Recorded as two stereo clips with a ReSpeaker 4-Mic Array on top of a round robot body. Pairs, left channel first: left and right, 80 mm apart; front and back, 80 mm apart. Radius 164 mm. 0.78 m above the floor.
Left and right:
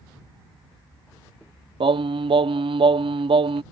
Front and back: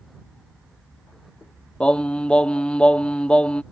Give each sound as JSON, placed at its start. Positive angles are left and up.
{"t": 1.8, "sound": "singing", "azimuth_deg": -80}